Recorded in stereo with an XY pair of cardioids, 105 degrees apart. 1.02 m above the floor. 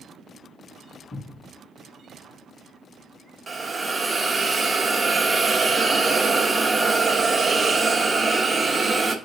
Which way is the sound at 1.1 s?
50° left.